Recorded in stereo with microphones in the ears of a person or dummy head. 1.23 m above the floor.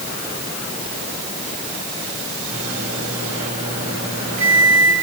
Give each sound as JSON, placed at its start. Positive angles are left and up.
{"t": 2.5, "sound": "a microwave", "side_deg": -40, "distance_m": 5.5}